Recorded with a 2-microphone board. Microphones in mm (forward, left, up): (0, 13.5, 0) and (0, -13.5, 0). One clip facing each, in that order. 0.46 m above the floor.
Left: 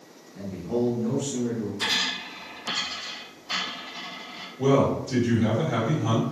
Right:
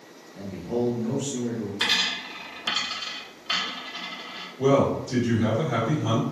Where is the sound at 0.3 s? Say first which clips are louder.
Left 1 dB; 10° right (ahead or behind), 0.7 m.